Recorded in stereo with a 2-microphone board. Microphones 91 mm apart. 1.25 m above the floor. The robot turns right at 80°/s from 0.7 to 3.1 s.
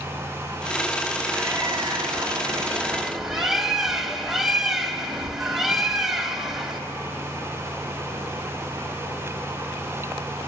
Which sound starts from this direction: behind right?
A bird, at 1.3 s.